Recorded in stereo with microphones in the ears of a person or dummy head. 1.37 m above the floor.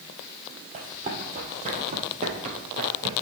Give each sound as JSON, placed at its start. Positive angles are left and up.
{"t": 0.7, "sound": "running footsteps", "side_deg": -40, "distance_m": 3.0}